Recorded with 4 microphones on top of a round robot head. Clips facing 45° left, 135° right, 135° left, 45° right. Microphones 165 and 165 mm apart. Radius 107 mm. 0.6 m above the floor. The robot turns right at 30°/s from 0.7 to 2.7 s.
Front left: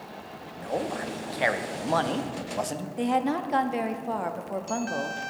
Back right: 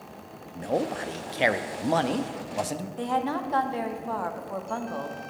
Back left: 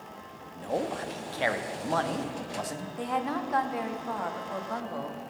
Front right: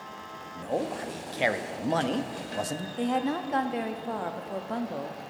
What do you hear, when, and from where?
0.6 s a man speaking: 115° right, 0.6 m; by 2.9 s 55° right, 0.6 m
3.0 s a woman speaking: 10° right, 0.8 m